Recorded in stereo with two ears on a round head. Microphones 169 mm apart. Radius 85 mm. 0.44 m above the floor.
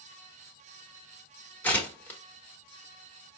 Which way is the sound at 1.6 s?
10° left (ahead or behind).